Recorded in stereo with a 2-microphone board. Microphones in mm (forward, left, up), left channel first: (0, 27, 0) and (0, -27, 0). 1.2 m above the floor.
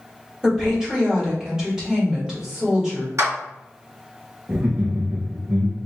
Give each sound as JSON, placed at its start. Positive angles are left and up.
{"t": 0.4, "sound": "a woman speaking", "side_deg": -10, "distance_m": 1.8}
{"t": 3.2, "sound": "a clap", "side_deg": -65, "distance_m": 1.3}
{"t": 4.5, "sound": "laughter", "side_deg": -45, "distance_m": 0.7}